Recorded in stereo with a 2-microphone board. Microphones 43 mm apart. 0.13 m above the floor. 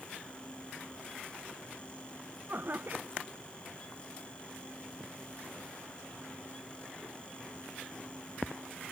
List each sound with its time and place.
2.5 s laughter: 50° right (ahead or behind)